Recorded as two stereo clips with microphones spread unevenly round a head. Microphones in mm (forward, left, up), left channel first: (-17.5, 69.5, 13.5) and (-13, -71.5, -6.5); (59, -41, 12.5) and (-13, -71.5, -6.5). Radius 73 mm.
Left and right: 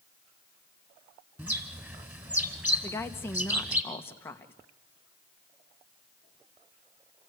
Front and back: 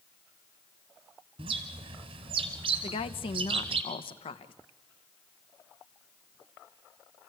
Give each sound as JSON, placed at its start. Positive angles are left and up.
{"t": 1.4, "sound": "a bird", "azimuth_deg": -170, "distance_m": 1.8}
{"t": 2.8, "sound": "a woman speaking", "azimuth_deg": 15, "distance_m": 1.0}